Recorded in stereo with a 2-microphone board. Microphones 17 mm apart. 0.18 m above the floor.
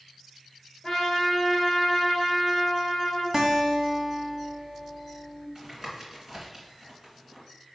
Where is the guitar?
20° right (ahead or behind), 1.3 m.